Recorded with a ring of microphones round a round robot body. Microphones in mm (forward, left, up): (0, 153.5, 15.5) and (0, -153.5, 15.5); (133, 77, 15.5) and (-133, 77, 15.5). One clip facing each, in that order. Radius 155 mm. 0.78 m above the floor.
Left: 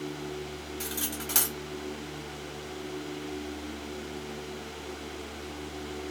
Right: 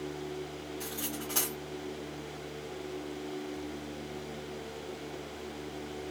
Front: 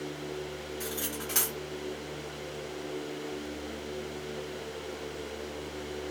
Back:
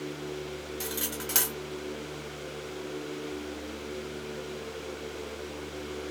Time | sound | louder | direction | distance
0.8 | cutlery clinking | left 2 dB, back 1 dB | 140° left | 1.6 m